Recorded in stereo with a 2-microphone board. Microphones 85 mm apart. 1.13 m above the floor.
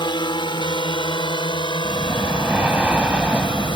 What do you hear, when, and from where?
0.0 s a drone: 65° left (ahead or behind)
1.8 s breathing: 15° right (ahead or behind)